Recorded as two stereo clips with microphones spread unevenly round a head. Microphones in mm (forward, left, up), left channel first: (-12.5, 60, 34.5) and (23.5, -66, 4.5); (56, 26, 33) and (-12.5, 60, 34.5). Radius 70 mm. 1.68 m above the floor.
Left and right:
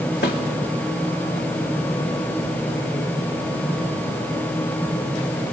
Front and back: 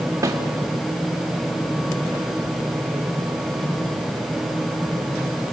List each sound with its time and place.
0.2 s a snare drum: 110° left, 3.5 m